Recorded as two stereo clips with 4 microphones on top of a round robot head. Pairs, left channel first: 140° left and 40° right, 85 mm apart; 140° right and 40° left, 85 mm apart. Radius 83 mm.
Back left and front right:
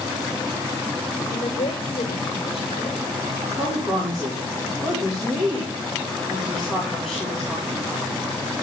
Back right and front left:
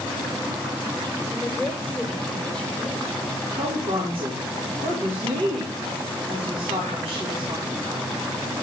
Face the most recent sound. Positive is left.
turn(degrees=50)